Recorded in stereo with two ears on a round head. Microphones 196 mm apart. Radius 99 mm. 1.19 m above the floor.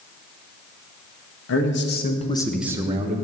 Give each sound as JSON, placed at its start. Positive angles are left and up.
{"t": 1.5, "sound": "a man speaking", "side_deg": 65, "distance_m": 1.6}